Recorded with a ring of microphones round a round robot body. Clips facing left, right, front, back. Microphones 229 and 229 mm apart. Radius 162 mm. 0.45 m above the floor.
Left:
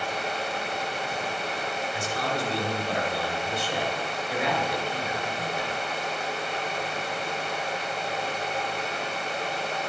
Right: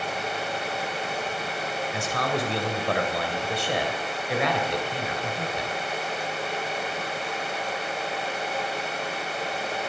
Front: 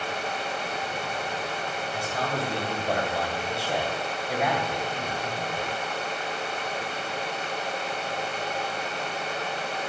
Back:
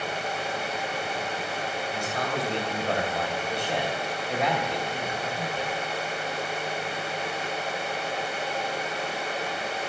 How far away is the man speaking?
About 2.5 m.